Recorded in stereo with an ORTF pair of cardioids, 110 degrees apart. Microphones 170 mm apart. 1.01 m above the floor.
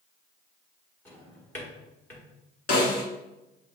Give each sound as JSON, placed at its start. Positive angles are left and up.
{"t": 1.1, "sound": "a drawer", "azimuth_deg": 10, "distance_m": 1.4}
{"t": 2.7, "sound": "a snare drum", "azimuth_deg": 55, "distance_m": 1.8}